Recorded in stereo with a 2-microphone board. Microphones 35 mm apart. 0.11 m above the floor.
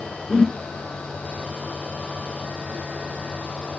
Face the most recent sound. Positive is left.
turn(degrees=15)  # may be behind; listen again after turning